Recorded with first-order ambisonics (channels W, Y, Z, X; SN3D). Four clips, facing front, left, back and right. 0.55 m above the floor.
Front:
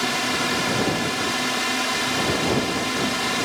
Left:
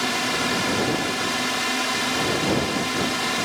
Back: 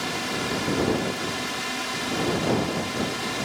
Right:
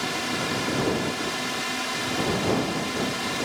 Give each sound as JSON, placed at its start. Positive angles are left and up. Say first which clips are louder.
{"t": 0.0, "sound": "a drone", "louder": "left 4 dB, front 5 dB", "azimuth_deg": 40}